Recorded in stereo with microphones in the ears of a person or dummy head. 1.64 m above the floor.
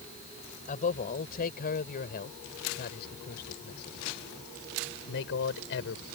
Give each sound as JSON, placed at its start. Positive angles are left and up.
{"t": 0.7, "sound": "a man speaking", "side_deg": 40}